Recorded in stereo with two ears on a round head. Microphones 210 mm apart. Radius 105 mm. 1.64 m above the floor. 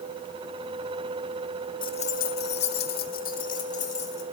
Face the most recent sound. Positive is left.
turn(degrees=30)  # may be behind; listen again after turning